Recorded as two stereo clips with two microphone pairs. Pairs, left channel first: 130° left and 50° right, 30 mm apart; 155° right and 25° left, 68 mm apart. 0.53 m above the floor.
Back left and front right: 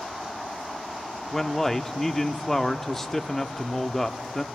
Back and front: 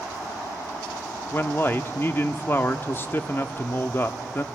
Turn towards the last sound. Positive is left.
turn(degrees=-160)